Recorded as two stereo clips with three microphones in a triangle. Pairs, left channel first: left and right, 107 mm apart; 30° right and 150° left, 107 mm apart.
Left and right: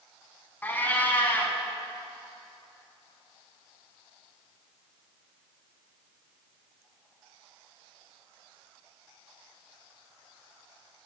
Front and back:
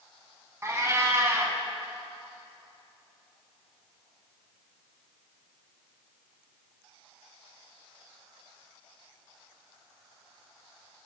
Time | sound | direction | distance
0.6 | a cat meowing | 135° left | 0.5 m